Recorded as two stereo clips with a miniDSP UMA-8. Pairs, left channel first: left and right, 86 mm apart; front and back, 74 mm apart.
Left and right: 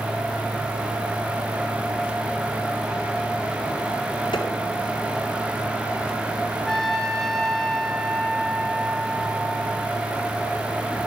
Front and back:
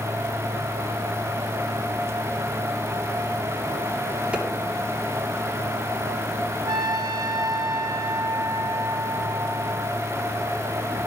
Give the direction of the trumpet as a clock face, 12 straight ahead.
6 o'clock.